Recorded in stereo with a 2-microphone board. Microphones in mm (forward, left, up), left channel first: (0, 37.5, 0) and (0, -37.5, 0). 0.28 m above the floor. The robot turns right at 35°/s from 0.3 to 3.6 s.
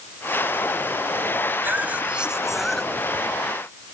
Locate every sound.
1.6 s a cough: 35° right; by 3.4 s 25° left